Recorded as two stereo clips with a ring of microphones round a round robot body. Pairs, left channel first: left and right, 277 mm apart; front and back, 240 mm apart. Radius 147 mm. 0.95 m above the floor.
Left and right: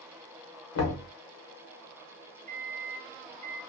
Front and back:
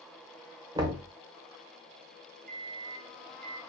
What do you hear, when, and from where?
0.8 s knocking: 105° left, 0.9 m
2.5 s a microwave: 140° right, 0.5 m